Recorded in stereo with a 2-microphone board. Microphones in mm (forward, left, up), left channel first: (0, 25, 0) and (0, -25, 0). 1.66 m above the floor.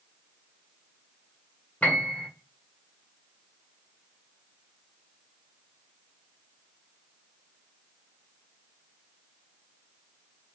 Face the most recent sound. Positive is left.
turn(degrees=30)  # may be behind; listen again after turning